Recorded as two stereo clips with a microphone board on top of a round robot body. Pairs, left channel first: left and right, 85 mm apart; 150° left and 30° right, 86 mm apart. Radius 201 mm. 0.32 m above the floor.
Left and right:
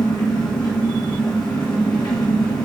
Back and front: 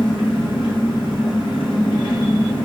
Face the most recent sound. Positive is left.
turn(degrees=130)